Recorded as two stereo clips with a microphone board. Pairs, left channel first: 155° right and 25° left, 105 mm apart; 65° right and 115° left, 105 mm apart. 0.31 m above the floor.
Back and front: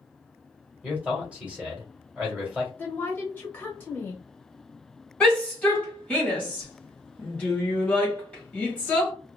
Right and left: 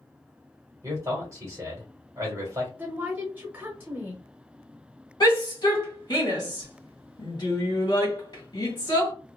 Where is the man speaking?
90° left, 1.5 m.